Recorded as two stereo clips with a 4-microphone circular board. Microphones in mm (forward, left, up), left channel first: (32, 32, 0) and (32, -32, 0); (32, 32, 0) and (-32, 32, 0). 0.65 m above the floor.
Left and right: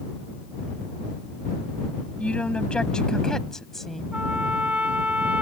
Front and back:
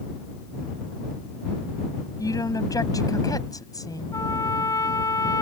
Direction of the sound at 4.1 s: 20° right.